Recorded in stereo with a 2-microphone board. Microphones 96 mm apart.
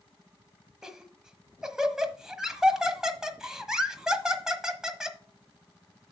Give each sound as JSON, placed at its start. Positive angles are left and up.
{"t": 0.8, "sound": "laughter", "side_deg": -5, "distance_m": 1.3}